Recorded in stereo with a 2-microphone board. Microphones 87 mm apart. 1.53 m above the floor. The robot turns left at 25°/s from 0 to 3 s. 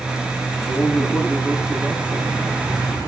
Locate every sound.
0.6 s a man speaking: 15° left, 3 m; by 2.3 s 25° right, 3 m